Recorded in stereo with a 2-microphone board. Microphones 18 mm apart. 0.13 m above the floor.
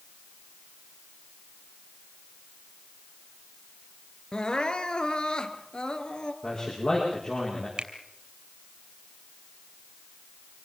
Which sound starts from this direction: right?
A finger snap, at 7.8 s.